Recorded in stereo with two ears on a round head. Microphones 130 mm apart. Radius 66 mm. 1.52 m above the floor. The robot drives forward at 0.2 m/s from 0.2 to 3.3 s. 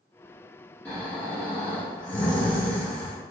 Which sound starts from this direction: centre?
Snoring, at 0.8 s.